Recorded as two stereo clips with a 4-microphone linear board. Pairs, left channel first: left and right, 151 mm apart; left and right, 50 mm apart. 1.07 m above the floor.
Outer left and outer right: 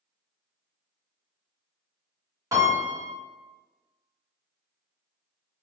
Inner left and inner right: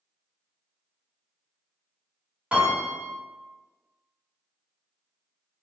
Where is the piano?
20° right (ahead or behind), 1.6 m.